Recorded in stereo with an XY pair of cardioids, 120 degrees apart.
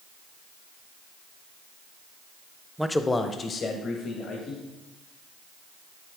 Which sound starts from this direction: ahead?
A man speaking, at 2.8 s.